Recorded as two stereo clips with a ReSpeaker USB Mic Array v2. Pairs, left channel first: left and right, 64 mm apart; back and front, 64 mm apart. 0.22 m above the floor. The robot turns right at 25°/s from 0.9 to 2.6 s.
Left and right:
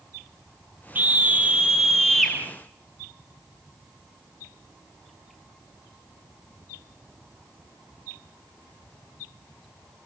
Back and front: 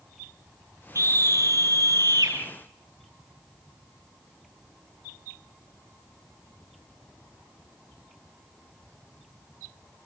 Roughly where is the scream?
Ahead right.